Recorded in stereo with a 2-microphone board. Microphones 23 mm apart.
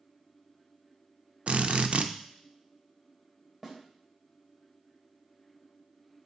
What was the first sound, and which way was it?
A drill, 60° right (ahead or behind).